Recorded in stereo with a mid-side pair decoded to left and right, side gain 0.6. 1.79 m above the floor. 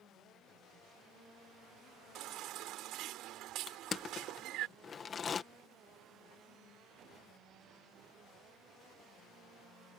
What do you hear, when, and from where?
2.1 s a baby crying: 65° right
3.7 s crushing: 35° left